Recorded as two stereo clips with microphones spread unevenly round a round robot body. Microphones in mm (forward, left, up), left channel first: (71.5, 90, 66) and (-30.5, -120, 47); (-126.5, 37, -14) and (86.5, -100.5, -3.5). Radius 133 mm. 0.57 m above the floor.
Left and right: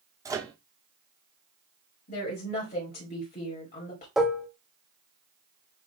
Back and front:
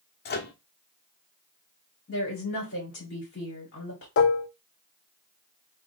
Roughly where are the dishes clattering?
Behind.